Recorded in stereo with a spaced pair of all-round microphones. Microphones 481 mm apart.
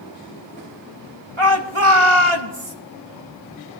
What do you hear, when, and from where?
1.4 s a shout: 85° right, 1.7 m